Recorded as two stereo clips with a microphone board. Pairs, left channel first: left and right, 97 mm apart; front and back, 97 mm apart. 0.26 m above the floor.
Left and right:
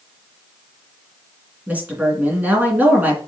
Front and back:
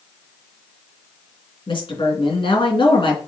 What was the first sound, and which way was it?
A woman speaking, 20° right.